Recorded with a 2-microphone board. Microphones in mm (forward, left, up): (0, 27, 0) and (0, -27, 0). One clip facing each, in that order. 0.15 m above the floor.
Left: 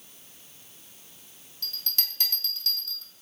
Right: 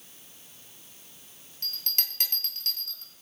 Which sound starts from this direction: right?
A bell, at 1.6 s.